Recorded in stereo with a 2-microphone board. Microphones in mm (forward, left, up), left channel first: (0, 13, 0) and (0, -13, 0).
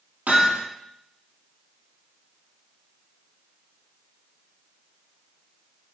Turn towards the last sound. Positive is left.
turn(degrees=-80)